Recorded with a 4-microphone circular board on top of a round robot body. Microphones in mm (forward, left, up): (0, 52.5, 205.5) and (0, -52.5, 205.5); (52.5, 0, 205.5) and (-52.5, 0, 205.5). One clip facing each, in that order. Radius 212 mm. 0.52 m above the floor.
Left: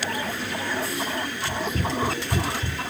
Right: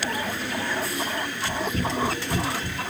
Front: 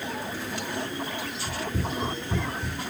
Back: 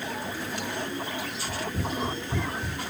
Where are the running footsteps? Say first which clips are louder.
Right 1 dB, front 1 dB; 50° right, 0.7 m; by 2.8 s 80° left, 0.5 m.